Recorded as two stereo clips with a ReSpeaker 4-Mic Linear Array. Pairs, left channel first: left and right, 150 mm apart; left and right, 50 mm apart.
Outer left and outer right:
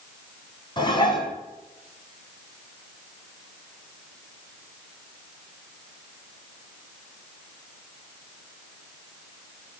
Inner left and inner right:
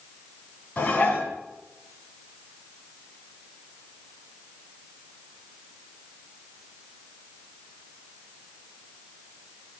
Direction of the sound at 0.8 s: 30° left (ahead or behind).